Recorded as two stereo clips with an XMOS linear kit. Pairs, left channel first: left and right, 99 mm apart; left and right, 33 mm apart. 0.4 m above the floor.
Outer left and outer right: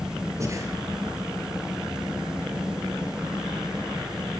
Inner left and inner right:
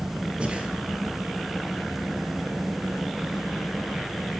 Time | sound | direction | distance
0.4 | breathing | 30° right (ahead or behind) | 4 m